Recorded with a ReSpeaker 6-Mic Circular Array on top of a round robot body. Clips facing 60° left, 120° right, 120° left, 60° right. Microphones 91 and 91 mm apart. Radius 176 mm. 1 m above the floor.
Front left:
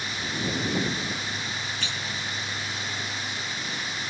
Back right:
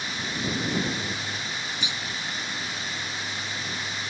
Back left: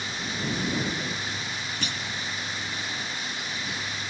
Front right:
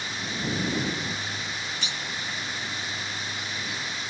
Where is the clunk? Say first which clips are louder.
Even, back left 2 dB; 165° left.